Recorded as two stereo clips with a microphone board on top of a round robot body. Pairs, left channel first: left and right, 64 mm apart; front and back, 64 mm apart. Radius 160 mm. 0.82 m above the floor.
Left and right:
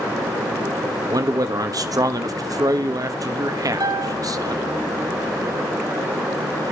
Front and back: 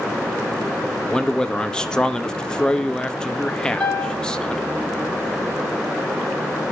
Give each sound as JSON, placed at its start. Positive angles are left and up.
{"t": 1.1, "sound": "a man speaking", "azimuth_deg": -75, "distance_m": 1.4}
{"t": 3.8, "sound": "a piano", "azimuth_deg": -75, "distance_m": 4.0}